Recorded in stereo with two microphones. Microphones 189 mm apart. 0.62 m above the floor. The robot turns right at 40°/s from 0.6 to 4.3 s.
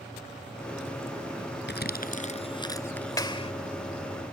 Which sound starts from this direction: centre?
A clap, at 3.2 s.